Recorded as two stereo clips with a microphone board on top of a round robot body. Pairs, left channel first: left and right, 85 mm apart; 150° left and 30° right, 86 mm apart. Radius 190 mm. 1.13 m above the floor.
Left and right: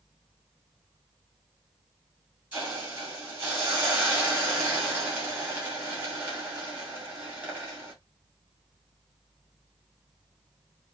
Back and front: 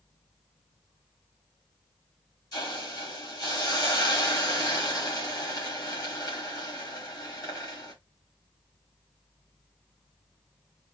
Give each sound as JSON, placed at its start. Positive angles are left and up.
{"t": 2.5, "sound": "a hiss", "azimuth_deg": -160, "distance_m": 2.0}